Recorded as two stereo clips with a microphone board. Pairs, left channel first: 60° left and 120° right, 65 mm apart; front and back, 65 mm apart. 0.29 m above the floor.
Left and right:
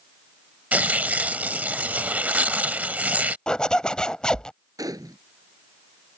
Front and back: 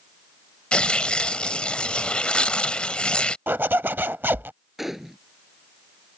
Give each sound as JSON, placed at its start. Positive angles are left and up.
{"t": 0.7, "sound": "tearing paper", "azimuth_deg": -65}
{"t": 3.5, "sound": "a zipper", "azimuth_deg": 135}
{"t": 4.8, "sound": "a gunshot", "azimuth_deg": -90}